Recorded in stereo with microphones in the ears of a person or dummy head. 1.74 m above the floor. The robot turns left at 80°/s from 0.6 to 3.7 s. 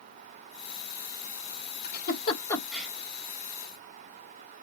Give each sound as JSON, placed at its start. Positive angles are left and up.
{"t": 1.8, "sound": "a giggle", "side_deg": 70, "distance_m": 4.0}